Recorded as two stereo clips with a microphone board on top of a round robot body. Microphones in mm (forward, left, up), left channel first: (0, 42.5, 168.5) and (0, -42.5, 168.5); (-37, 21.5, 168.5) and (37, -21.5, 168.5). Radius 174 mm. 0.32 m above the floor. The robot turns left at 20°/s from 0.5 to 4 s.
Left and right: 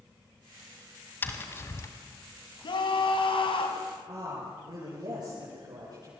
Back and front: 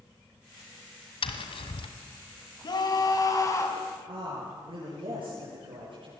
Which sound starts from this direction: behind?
Tapping, at 1.2 s.